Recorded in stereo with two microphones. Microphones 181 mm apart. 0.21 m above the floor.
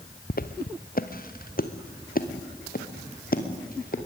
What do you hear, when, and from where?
0.3 s footsteps: 55° left (ahead or behind), 1.3 m; by 4.0 s 50° left (ahead or behind), 3.5 m